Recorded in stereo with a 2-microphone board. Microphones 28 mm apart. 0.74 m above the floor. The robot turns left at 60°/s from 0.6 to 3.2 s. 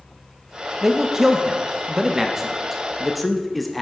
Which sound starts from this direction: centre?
A man speaking, at 0.8 s.